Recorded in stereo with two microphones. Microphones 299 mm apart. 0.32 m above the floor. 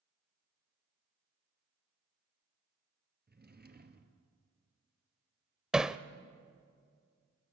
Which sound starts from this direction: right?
A drawer, at 3.3 s.